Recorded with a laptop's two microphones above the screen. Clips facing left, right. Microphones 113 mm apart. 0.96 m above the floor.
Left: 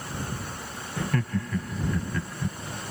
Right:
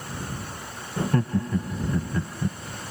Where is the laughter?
25° right (ahead or behind).